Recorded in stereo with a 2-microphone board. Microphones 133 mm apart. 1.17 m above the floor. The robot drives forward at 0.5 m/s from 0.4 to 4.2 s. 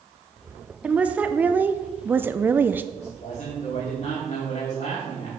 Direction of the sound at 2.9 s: 55° left (ahead or behind).